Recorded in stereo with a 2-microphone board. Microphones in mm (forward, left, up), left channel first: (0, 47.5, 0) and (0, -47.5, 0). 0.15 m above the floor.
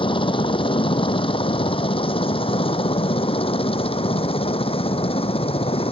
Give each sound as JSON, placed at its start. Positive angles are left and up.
{"t": 0.0, "sound": "a helicopter", "side_deg": 65}